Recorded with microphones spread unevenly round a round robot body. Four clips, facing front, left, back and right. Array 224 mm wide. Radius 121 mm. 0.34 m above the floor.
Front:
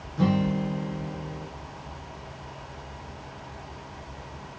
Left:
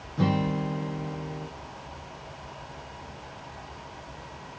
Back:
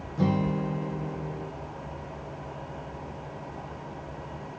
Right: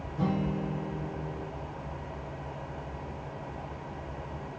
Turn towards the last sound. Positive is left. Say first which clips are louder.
# left 4 dB, front 2 dB
turn(degrees=105)